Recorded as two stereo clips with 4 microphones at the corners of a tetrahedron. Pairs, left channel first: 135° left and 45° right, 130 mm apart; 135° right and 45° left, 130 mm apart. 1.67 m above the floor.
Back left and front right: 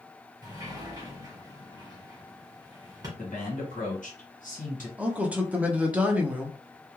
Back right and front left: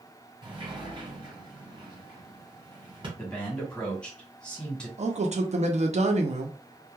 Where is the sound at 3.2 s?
145° left, 1.3 m.